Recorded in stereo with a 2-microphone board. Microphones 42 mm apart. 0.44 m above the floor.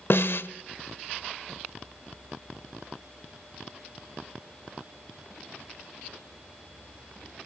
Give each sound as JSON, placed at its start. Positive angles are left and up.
{"t": 0.1, "sound": "a snare drum", "side_deg": 60, "distance_m": 0.9}